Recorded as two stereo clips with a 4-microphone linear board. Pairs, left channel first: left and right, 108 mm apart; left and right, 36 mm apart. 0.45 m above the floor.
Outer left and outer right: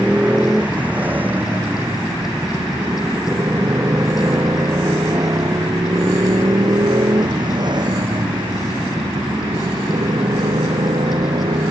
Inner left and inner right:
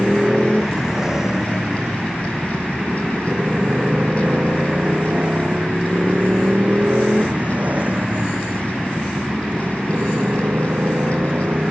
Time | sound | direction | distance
0.0 | a motorcycle | 10° right (ahead or behind) | ?